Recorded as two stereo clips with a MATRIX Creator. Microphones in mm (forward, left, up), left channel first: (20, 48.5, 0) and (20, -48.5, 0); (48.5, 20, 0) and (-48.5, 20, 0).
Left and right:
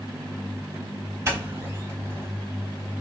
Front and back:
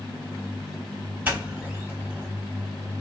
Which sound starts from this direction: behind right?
A doorbell, at 1.2 s.